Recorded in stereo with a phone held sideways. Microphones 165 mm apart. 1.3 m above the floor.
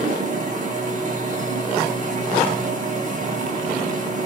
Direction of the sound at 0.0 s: 50° right (ahead or behind).